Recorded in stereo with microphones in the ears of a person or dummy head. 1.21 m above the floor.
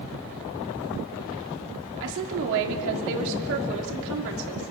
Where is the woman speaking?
70° right (ahead or behind), 3.5 m.